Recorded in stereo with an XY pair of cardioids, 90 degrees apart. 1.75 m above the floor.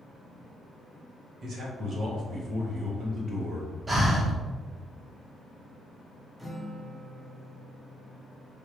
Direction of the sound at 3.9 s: 30° right.